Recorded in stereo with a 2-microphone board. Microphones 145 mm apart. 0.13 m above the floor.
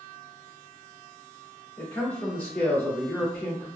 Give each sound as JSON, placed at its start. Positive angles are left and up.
{"t": 1.8, "sound": "a man speaking", "side_deg": 15, "distance_m": 1.1}